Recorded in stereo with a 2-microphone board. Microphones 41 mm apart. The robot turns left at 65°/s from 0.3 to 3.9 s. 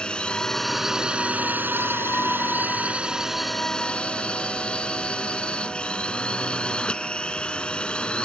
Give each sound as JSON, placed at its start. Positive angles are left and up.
{"t": 0.0, "sound": "a drone", "azimuth_deg": 25}